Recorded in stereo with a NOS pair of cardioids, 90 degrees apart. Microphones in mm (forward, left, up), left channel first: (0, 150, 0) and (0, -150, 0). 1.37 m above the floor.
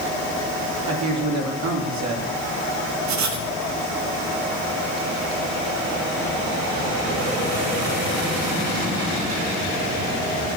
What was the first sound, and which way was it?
A man speaking, 65° right.